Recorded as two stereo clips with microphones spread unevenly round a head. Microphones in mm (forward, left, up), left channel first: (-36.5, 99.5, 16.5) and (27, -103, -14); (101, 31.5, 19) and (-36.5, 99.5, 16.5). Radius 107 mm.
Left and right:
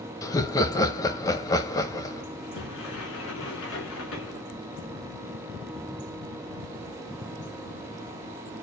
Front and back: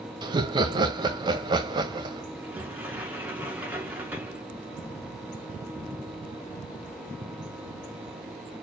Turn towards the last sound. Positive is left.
turn(degrees=75)